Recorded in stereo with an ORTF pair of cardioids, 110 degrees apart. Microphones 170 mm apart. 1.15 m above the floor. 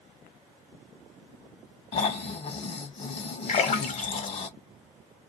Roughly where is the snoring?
Ahead left.